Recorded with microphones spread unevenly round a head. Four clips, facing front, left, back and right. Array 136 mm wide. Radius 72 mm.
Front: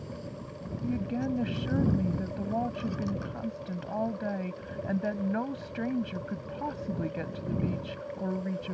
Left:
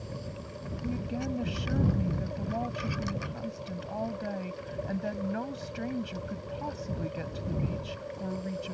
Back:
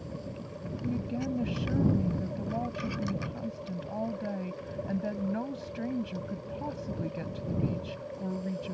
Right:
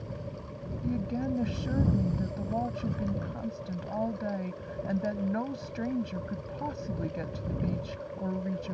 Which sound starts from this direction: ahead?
A woman speaking, at 0.8 s.